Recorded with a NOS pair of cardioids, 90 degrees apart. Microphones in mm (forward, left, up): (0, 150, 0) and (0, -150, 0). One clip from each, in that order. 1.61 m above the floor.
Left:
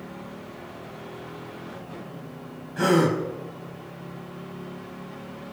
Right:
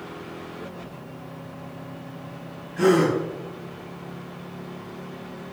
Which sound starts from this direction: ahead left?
A gasp, at 2.8 s.